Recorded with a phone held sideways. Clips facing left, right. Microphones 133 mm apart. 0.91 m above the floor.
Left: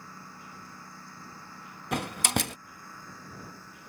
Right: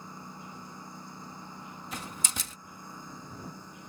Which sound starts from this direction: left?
A door slam, at 1.9 s.